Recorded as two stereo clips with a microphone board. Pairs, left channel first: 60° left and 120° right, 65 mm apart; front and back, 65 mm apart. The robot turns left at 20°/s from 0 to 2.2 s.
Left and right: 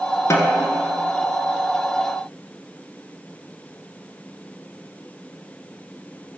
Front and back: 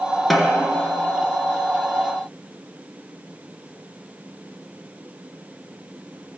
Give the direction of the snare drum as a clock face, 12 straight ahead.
9 o'clock.